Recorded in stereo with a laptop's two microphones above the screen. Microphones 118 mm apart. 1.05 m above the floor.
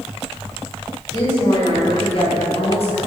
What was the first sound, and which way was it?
A woman speaking, 40° left (ahead or behind).